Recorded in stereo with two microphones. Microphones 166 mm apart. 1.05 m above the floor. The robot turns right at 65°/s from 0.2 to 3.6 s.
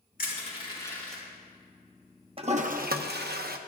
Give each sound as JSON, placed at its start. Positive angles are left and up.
{"t": 0.2, "sound": "crushing", "side_deg": 60, "distance_m": 5.0}
{"t": 2.4, "sound": "a toilet flushing", "azimuth_deg": -145, "distance_m": 0.8}